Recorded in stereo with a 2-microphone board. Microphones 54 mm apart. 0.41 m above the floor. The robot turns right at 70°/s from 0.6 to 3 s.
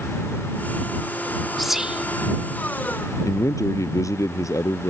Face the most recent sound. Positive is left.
turn(degrees=80)